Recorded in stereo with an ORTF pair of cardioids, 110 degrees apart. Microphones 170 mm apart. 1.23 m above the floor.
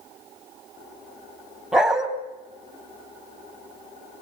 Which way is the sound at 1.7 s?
5° right.